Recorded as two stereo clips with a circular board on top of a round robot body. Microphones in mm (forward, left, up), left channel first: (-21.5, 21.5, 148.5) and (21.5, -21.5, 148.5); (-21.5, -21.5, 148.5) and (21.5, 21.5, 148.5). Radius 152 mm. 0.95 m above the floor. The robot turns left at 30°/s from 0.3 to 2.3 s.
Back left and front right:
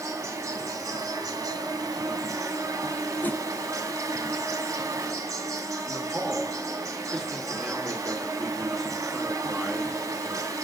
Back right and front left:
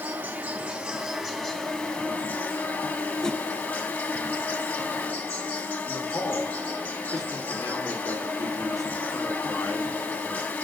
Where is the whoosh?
155° left, 0.8 m.